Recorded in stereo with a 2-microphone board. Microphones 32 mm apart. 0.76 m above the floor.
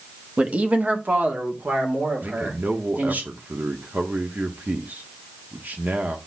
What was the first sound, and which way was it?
A man speaking, 35° right (ahead or behind).